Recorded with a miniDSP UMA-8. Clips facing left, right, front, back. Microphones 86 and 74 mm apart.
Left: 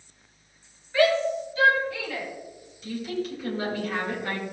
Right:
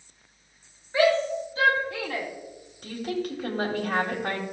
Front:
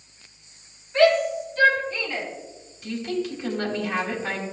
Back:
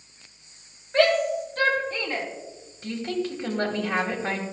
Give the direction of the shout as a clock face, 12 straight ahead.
5 o'clock.